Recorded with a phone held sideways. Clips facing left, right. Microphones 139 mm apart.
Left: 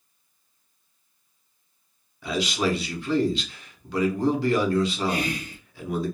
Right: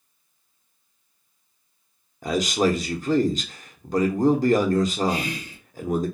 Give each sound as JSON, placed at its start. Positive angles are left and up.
{"t": 2.2, "sound": "a man speaking", "side_deg": -45, "distance_m": 0.5}
{"t": 5.1, "sound": "whispering", "side_deg": 60, "distance_m": 0.9}